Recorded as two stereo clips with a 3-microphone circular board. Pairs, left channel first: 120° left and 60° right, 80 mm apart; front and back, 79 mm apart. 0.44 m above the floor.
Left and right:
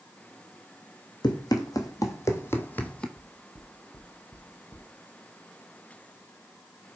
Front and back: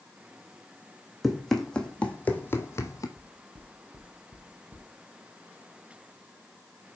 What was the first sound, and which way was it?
Running footsteps, 90° left.